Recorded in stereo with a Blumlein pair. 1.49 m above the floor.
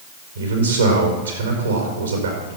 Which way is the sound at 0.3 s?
70° right.